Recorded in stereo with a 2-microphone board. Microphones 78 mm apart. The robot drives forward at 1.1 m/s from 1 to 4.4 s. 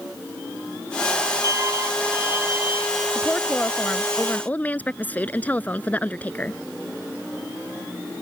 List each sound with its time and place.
1.4 s a violin: 45° right (ahead or behind); by 3.0 s 20° right (ahead or behind)
3.1 s a woman speaking: 15° left (ahead or behind); by 6.6 s 20° left (ahead or behind)